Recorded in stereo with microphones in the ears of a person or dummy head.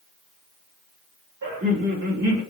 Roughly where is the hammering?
I don't hear hammering.